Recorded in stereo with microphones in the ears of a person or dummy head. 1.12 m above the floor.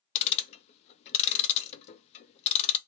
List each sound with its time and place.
0.1 s ticking: 35° left (ahead or behind), 0.6 m